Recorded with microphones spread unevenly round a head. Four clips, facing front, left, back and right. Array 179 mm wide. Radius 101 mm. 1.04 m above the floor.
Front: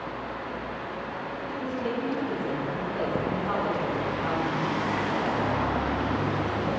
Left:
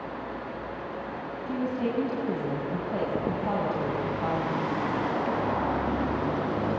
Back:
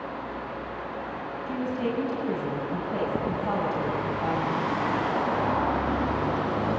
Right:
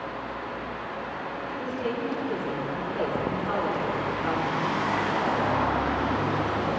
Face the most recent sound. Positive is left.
turn(degrees=115)